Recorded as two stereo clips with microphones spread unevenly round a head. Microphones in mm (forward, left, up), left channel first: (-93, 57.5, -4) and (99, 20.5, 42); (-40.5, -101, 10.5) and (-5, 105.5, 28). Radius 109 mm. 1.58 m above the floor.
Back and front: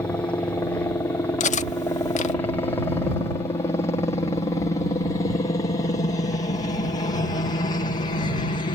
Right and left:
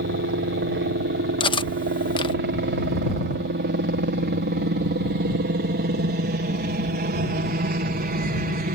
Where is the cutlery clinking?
150° right.